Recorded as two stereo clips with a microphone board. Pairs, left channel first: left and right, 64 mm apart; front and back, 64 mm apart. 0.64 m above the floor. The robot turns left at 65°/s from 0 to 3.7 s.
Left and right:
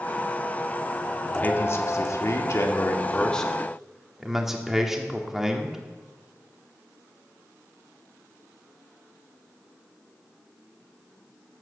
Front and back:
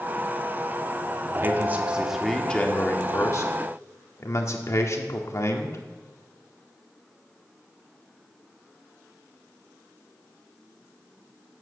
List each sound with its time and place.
1.4 s a man speaking: 145° left, 1.8 m; by 5.8 s 5° right, 1.8 m